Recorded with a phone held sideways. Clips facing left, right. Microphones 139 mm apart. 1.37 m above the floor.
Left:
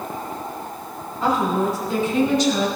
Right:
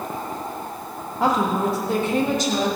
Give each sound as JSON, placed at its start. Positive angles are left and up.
{"t": 1.2, "sound": "a woman speaking", "side_deg": -80, "distance_m": 2.0}